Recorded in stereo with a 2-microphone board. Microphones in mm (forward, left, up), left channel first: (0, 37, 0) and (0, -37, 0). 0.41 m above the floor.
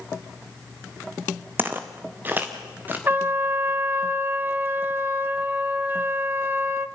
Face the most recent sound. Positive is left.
turn(degrees=-30)  # may be behind; listen again after turning